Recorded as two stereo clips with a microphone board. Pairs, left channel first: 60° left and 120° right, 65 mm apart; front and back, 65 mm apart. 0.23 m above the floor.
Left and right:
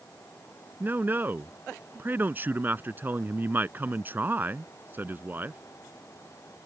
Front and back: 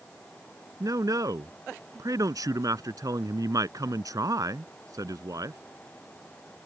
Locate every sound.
0.8 s a man speaking: 175° right